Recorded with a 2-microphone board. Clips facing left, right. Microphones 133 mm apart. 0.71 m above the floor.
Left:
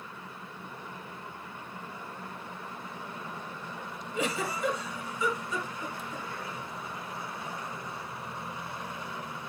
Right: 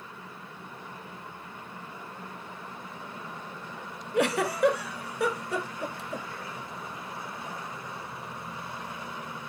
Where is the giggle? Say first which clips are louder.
Right 7 dB; 70° right (ahead or behind), 1.1 m.